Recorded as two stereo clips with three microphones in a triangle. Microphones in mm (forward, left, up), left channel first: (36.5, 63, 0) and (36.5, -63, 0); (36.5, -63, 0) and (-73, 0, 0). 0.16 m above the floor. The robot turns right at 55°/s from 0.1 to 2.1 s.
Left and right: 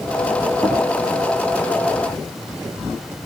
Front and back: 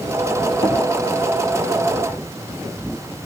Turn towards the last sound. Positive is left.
turn(degrees=95)